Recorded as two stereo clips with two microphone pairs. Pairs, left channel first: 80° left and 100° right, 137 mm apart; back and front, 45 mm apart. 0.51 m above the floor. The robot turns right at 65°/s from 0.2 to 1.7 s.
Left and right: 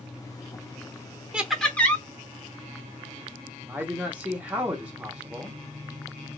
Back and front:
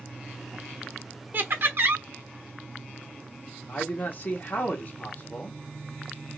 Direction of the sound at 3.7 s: 175° right.